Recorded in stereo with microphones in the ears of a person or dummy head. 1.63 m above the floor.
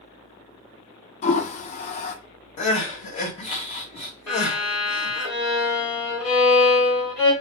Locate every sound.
1.2 s a toilet flushing: 50° left (ahead or behind), 0.5 m
2.6 s crying: 30° left (ahead or behind), 1.0 m
4.3 s a violin: 5° left (ahead or behind), 1.5 m